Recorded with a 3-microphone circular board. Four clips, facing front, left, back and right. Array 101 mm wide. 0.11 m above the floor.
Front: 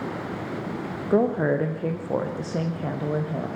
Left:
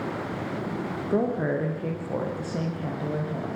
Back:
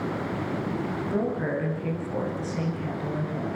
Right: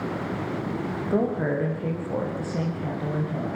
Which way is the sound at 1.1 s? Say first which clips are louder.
Even, front 8 dB; 5° right.